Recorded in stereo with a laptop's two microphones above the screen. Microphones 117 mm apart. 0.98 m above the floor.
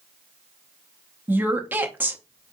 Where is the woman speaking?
15° right (ahead or behind), 0.7 m.